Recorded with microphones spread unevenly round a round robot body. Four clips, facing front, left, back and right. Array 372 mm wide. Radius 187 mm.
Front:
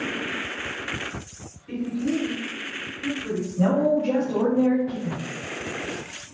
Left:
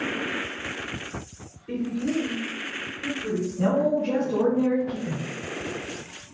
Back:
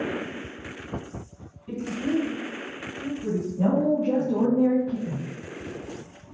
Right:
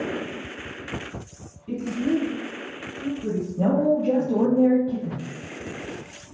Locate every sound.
1.7 s a woman speaking: 120° right, 2.5 m
3.6 s a woman speaking: 80° right, 2.0 m